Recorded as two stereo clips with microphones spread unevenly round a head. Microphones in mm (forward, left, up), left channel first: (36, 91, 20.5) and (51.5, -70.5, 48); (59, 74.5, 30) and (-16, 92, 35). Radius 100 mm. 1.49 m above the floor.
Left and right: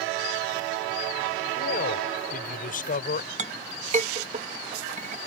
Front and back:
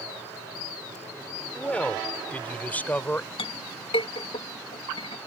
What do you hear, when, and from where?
1.5 s a man speaking: 65° left; by 3.3 s 55° left
3.4 s a clink: 40° right